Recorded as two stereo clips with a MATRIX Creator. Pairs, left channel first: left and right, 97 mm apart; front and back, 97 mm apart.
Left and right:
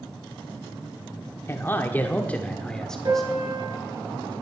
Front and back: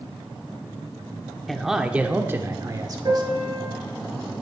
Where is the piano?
135° right, 5.5 m.